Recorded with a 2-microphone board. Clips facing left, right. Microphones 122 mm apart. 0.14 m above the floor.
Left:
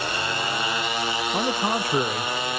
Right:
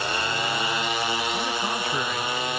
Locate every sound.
1.3 s a man speaking: 40° left (ahead or behind); by 2.3 s 35° left (ahead or behind)